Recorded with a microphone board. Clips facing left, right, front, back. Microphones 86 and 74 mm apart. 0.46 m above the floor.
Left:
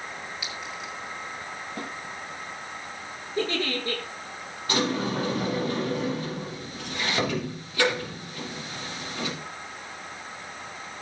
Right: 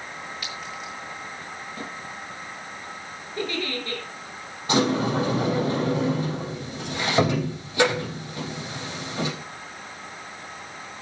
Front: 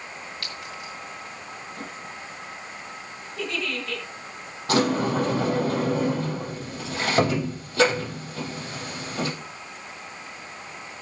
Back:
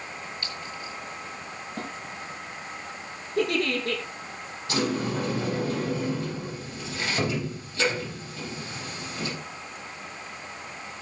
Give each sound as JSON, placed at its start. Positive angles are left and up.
{"t": 0.4, "sound": "a clink", "azimuth_deg": 5, "distance_m": 6.0}
{"t": 1.8, "sound": "a snare drum", "azimuth_deg": 135, "distance_m": 6.5}
{"t": 3.4, "sound": "a giggle", "azimuth_deg": 155, "distance_m": 6.5}
{"t": 4.7, "sound": "a sliding door", "azimuth_deg": -20, "distance_m": 4.0}